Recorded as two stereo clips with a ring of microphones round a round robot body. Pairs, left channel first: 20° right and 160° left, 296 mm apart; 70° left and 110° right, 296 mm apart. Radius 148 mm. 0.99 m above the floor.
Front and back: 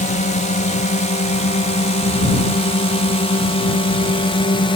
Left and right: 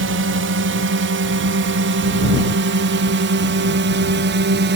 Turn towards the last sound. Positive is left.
turn(degrees=-85)